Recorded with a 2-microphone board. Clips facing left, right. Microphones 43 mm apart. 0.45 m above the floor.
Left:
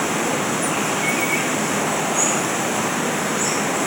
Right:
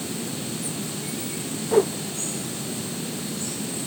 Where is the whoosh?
55° right (ahead or behind).